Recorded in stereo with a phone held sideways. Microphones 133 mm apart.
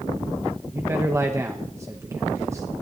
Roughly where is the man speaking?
Right.